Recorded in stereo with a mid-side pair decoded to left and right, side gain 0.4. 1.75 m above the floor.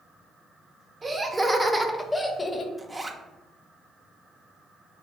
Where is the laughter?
35° right, 0.9 m; by 2.7 s 40° left, 0.6 m.